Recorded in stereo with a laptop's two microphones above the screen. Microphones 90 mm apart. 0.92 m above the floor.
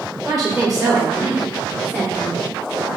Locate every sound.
0.2 s a woman speaking: 20° right (ahead or behind), 0.7 m; by 2.4 s 20° left (ahead or behind), 1.9 m